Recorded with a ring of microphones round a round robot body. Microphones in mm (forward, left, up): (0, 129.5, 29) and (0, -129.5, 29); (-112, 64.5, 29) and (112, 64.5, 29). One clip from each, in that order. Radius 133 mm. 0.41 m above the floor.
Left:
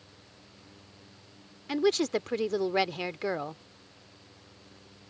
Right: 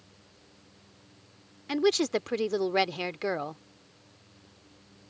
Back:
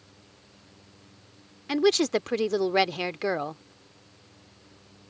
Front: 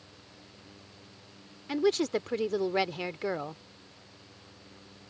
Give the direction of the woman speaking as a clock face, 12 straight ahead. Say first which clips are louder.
Right 1 dB, back 5 dB; 5 o'clock.